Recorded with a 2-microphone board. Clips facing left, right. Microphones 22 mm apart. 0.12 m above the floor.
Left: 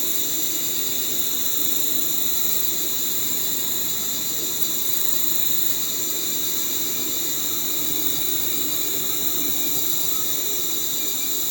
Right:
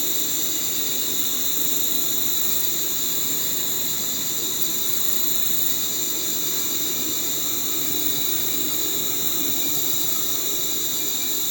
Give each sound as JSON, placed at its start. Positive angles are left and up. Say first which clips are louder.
{"t": 0.0, "sound": "an insect", "louder": "right 1 dB", "side_deg": -30, "distance_m": 10.0}